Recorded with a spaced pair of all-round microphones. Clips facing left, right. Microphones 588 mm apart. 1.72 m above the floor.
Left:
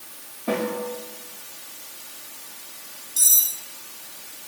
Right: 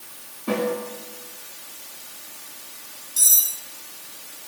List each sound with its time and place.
0.5 s a snare drum: 5° left (ahead or behind), 5.5 m
3.2 s cutlery clinking: 60° left (ahead or behind), 3 m